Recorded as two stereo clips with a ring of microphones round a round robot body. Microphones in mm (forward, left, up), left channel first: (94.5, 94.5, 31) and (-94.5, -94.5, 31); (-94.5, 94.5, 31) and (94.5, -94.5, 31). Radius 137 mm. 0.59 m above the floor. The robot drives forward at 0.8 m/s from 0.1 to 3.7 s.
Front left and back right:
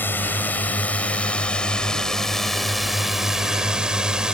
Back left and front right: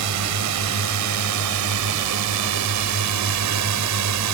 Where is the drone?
35° right; by 4.3 s 50° right.